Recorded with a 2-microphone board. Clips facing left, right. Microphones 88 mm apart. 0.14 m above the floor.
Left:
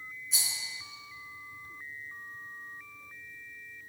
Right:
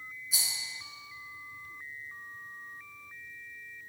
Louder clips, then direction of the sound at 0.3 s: Even; 5° right (ahead or behind).